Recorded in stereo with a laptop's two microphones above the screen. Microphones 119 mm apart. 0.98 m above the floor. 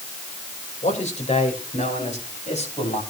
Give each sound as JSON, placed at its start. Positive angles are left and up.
{"t": 0.8, "sound": "a man speaking", "side_deg": 65, "distance_m": 4.5}